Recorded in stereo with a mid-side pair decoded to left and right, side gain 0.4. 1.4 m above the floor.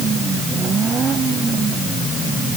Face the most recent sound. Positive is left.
No sound to turn to.